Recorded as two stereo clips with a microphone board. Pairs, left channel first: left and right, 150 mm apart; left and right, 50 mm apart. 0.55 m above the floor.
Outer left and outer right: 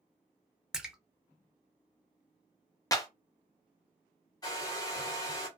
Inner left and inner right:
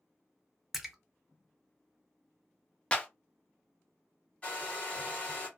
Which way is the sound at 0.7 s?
5° right (ahead or behind).